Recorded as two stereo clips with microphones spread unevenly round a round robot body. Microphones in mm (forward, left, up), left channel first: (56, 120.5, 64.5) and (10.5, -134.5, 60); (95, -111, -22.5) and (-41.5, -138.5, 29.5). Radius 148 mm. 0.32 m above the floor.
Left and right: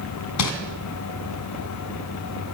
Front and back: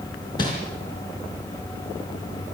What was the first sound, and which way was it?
Crumpling, 75° left.